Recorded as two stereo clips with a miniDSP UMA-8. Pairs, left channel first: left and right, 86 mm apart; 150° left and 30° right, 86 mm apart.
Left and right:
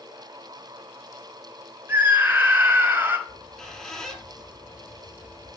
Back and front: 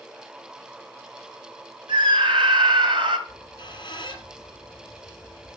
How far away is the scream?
About 4 m.